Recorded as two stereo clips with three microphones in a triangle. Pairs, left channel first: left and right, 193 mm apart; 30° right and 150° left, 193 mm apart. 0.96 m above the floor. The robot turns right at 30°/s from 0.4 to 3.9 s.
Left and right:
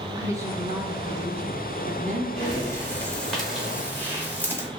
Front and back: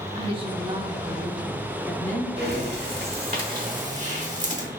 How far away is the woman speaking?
About 0.7 m.